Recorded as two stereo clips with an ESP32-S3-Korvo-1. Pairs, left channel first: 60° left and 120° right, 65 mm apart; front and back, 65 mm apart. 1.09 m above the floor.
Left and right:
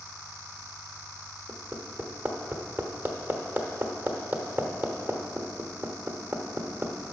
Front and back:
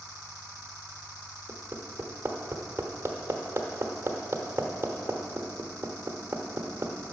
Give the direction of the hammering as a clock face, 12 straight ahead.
5 o'clock.